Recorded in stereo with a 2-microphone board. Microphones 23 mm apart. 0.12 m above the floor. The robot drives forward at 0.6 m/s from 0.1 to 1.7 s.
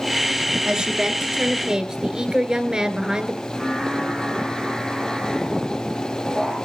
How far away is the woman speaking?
About 1.6 m.